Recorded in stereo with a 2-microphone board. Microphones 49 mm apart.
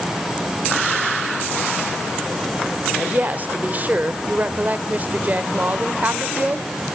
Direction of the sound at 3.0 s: 35° right (ahead or behind).